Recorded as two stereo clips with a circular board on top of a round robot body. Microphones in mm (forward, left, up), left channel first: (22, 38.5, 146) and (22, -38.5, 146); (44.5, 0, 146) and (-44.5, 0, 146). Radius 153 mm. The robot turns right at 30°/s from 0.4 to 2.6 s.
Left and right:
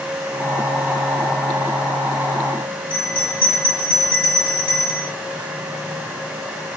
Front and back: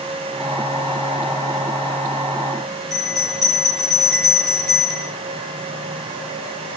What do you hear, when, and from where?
2.9 s a bell: 90° left, 1.2 m